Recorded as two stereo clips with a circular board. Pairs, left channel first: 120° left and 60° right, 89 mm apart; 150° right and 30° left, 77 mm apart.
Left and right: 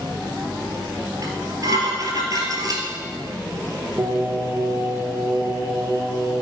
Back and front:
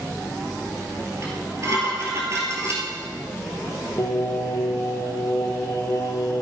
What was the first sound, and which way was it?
Dishes clattering, 15° right.